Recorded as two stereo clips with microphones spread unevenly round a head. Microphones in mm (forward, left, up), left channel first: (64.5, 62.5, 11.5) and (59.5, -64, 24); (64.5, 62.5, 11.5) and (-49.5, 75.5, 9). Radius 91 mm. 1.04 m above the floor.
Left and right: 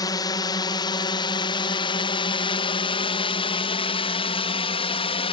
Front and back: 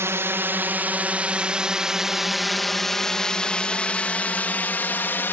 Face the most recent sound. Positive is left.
turn(degrees=60)